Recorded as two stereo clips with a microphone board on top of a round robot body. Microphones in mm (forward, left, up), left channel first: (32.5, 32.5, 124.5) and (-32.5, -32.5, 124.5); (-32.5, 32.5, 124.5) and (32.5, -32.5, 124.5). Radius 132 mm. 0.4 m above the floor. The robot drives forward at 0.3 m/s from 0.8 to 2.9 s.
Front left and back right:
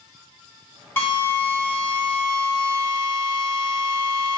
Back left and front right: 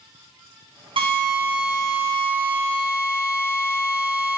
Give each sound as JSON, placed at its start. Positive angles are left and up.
{"t": 1.0, "sound": "a drill", "azimuth_deg": -25, "distance_m": 1.9}